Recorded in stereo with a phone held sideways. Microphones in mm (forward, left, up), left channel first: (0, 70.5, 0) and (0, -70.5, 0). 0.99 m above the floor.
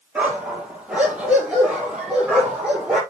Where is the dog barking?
10° right (ahead or behind), 5.5 m; by 3.0 s 5° right (ahead or behind), 8.5 m.